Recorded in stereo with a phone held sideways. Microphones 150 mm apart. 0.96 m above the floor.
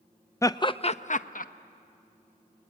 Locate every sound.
0.4 s laughter: 20° left (ahead or behind), 0.6 m; by 1.5 s 65° left (ahead or behind), 0.9 m